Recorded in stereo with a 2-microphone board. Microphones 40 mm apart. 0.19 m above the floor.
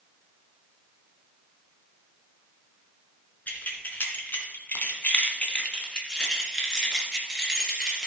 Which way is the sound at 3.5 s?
45° left (ahead or behind).